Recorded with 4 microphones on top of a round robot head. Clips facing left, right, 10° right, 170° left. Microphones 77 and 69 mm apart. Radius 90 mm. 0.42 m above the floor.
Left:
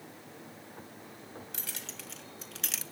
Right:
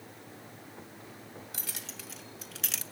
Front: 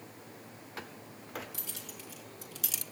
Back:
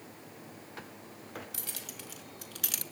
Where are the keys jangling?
175° right, 2.0 m; by 2.8 s straight behind, 0.7 m.